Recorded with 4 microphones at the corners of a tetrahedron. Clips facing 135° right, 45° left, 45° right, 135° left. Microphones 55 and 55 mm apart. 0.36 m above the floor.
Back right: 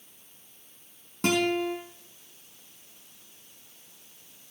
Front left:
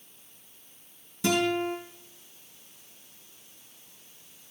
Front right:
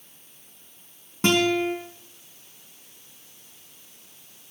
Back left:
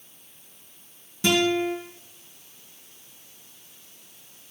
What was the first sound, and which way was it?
A guitar, 95° right.